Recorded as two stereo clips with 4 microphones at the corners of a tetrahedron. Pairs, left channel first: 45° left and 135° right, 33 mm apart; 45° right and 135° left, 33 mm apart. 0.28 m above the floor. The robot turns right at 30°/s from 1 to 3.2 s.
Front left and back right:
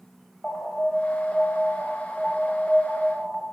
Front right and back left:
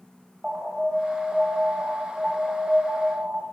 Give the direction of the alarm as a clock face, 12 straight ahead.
10 o'clock.